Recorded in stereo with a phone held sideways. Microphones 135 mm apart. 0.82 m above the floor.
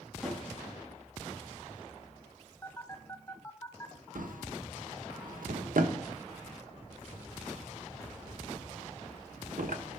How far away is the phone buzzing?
About 1.3 m.